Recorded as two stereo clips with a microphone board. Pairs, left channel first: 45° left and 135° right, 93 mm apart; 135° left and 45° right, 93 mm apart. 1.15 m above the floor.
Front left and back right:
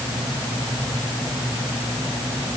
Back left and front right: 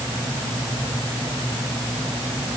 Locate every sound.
Only background noise.